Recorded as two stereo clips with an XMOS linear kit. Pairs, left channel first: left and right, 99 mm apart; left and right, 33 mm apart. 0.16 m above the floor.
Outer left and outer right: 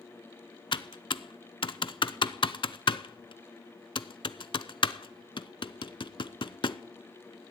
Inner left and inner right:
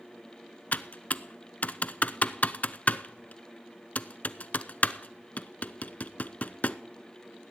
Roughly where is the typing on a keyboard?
Left.